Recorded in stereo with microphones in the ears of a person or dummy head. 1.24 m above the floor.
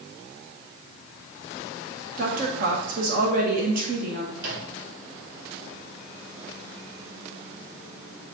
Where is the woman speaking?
50° right (ahead or behind), 1.8 m.